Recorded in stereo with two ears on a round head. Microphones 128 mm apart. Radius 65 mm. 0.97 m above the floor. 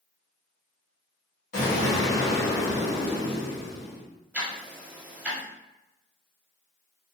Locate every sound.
1.5 s an explosion: 60° left (ahead or behind), 1.4 m
4.3 s ticking: 10° right (ahead or behind), 0.8 m